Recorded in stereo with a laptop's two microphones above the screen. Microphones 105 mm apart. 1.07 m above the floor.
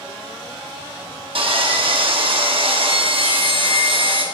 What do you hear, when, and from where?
1.4 s sawing: 60° right (ahead or behind), 0.8 m